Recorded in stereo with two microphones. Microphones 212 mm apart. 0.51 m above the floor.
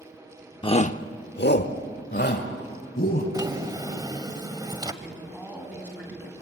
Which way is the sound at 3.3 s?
20° right (ahead or behind).